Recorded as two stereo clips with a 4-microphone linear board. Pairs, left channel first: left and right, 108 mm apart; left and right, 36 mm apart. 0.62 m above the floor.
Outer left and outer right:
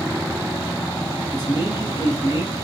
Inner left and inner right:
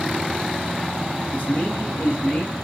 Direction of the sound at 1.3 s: 40° left (ahead or behind).